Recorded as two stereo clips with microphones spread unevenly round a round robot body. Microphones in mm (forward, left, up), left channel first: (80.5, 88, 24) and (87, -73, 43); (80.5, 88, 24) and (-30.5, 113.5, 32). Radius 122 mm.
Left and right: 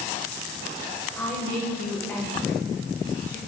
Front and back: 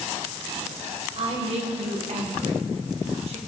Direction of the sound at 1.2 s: 170° left.